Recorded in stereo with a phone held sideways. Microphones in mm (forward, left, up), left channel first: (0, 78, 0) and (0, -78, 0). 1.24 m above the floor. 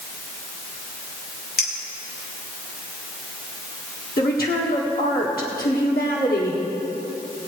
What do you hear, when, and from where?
1.6 s a clink: 80° left, 2.5 m
4.2 s a woman speaking: 75° left (ahead or behind), 1.6 m